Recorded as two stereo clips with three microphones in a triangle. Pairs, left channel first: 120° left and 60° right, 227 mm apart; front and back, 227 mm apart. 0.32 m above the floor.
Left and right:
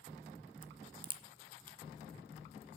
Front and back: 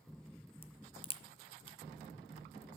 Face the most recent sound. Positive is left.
turn(degrees=-25)